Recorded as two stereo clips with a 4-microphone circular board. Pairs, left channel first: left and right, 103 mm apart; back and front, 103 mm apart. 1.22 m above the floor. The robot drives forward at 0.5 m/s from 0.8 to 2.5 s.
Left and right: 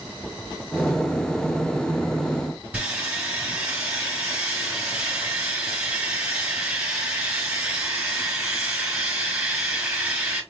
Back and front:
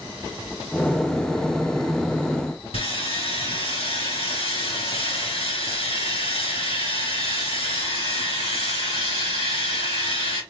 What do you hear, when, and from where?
2.7 s sawing: 170° right, 3 m